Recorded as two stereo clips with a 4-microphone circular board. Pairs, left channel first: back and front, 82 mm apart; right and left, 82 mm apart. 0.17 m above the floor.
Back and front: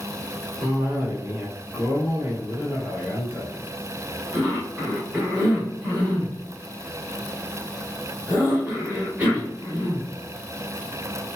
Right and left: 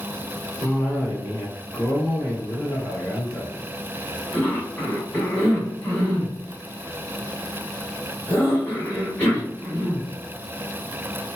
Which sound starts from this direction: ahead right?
A cough, at 0.6 s.